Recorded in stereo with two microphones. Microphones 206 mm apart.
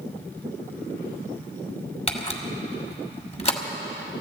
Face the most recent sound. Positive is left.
turn(degrees=30)  # may be behind; listen again after turning